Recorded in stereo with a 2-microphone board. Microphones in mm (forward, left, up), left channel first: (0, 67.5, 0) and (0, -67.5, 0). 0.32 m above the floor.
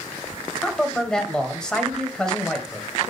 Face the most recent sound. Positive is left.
turn(degrees=5)  # may be behind; listen again after turning